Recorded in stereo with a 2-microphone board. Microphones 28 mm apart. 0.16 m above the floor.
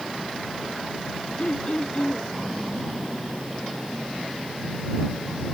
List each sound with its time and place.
1.4 s throat clearing: 50° left (ahead or behind)